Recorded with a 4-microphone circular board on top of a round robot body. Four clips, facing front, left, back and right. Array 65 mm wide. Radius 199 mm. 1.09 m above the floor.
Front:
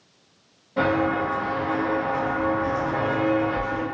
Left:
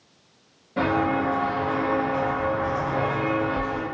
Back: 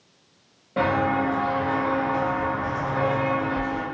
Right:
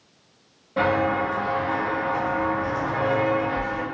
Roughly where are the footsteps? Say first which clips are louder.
Right 1 dB, even; behind.